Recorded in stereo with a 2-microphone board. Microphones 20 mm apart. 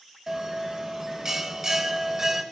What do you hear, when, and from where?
0.3 s a bell: 25° right (ahead or behind), 0.8 m